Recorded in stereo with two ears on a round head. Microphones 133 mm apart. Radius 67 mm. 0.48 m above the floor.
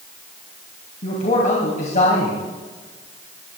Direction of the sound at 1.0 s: 55° left (ahead or behind).